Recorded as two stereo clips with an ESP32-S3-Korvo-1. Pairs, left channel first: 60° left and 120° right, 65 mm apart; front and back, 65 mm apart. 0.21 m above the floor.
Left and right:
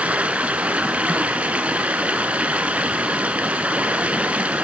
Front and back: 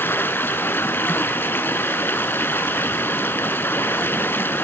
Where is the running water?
55° right, 1.1 m.